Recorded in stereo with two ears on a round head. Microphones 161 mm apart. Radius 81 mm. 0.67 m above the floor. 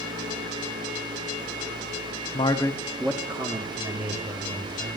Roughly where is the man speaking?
Left.